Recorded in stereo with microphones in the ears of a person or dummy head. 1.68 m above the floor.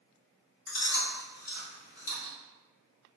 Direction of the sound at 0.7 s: 65° left (ahead or behind).